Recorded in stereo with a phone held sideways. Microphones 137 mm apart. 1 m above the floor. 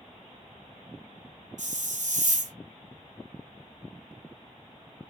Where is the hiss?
70° right (ahead or behind), 0.7 m.